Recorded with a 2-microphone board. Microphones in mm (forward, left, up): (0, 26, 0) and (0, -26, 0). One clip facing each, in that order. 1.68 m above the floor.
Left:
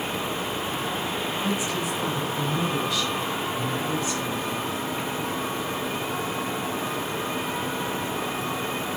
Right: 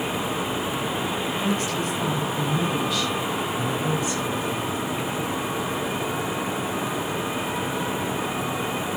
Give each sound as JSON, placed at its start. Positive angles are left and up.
{"t": 1.4, "sound": "a woman speaking", "side_deg": 15, "distance_m": 8.0}